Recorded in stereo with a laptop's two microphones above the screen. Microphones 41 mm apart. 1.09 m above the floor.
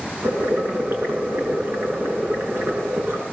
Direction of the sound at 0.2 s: 60° right (ahead or behind).